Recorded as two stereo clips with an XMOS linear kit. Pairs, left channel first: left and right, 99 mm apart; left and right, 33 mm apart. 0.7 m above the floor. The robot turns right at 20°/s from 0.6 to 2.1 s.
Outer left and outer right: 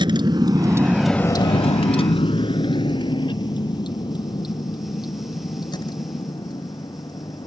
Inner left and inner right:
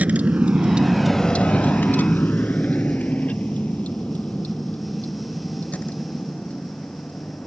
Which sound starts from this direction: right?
A vehicle, at 0.0 s.